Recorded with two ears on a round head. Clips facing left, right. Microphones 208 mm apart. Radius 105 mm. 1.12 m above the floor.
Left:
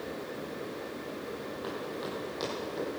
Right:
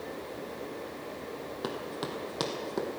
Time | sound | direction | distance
1.6 | running footsteps | 60° right (ahead or behind) | 2.5 m